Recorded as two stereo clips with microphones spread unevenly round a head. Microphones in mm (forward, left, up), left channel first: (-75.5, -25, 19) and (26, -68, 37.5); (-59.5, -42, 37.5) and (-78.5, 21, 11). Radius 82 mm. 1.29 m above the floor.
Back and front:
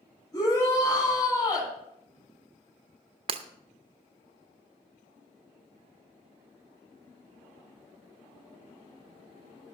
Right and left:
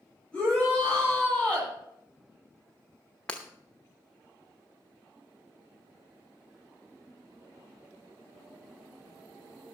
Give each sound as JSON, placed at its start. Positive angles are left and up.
{"t": 0.3, "sound": "a shout", "azimuth_deg": -150, "distance_m": 7.5}
{"t": 3.3, "sound": "breaking glass", "azimuth_deg": -15, "distance_m": 0.7}